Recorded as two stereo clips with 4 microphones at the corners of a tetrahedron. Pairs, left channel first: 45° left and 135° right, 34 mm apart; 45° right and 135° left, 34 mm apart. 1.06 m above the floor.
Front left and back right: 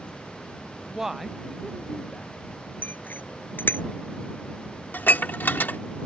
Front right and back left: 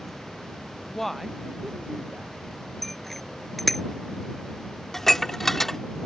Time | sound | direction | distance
0.9 | a woman speaking | 80° right | ?
2.8 | a bicycle bell | 40° left | ?
4.9 | dishes clattering | 35° left | ?